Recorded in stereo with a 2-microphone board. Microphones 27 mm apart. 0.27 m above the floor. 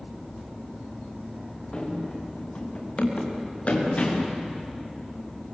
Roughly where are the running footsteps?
Left.